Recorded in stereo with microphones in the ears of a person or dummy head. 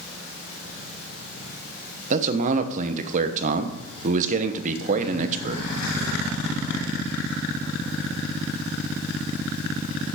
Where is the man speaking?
45° right (ahead or behind), 1.0 m.